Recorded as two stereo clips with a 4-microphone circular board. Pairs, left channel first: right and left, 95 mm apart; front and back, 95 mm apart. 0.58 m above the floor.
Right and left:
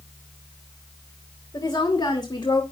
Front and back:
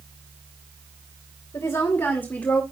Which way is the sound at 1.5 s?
55° right.